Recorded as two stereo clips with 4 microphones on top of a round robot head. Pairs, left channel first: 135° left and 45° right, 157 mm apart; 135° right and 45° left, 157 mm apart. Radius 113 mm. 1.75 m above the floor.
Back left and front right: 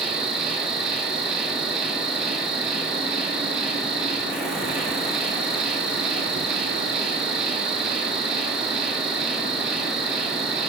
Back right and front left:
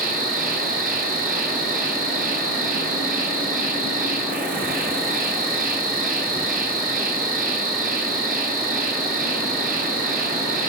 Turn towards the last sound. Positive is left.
turn(degrees=40)